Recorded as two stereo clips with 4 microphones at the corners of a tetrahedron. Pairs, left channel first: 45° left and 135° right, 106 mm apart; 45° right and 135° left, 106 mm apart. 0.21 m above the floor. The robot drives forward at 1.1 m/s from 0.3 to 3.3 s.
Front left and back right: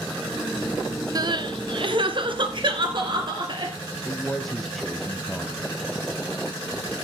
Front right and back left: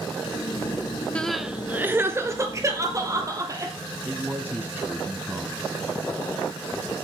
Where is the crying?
115° right, 0.7 m; by 3.7 s 170° right, 2.5 m.